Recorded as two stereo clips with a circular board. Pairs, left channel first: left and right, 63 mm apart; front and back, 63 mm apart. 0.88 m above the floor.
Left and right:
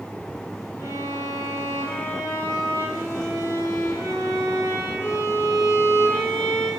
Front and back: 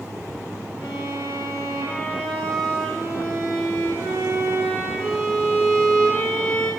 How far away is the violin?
About 4.5 m.